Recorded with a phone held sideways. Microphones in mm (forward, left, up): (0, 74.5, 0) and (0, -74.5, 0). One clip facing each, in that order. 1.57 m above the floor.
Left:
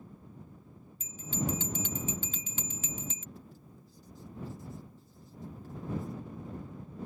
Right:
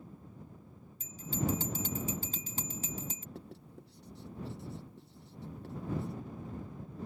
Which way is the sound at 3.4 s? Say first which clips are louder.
Right 3 dB; 70° right (ahead or behind).